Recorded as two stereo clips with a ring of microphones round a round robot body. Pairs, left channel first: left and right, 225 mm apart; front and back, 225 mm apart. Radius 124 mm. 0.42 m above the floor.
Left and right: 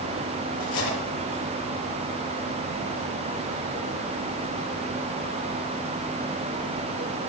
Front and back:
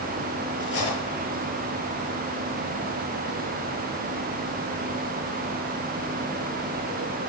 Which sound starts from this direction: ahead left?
Cutlery clinking, at 0.6 s.